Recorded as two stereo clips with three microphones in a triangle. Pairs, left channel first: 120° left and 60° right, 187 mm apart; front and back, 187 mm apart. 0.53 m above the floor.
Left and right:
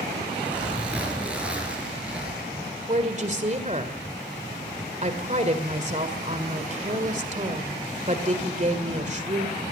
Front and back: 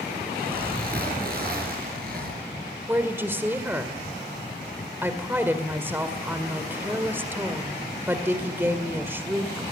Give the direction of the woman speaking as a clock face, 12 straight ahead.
3 o'clock.